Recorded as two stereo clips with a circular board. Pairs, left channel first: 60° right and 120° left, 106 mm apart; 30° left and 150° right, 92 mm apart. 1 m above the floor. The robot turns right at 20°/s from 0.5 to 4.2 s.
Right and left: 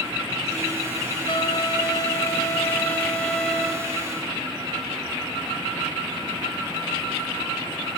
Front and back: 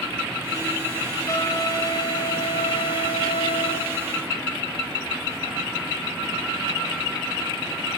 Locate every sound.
1.3 s a trumpet: 20° right, 2.5 m; by 3.9 s 30° left, 2.5 m